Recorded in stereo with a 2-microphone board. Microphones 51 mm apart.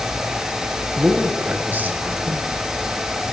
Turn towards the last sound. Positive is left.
turn(degrees=-40)  # may be behind; listen again after turning